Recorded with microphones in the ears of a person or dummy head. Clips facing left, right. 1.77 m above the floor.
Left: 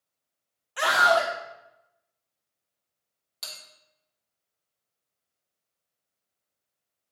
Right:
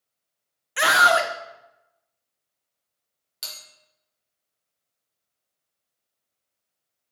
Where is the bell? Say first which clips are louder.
Even; 10° right (ahead or behind), 3 m.